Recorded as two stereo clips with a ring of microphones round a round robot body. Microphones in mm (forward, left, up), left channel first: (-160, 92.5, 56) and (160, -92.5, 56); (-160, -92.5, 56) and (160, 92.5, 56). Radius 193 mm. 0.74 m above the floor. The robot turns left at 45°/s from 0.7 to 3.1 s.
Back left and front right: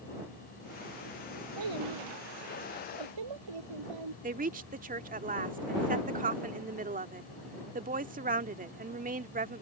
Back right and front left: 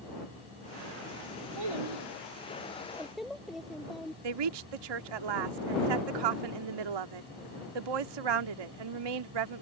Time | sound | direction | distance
1.6 | a child speaking | 10° left | ?
4.2 | a woman speaking | 40° left | ?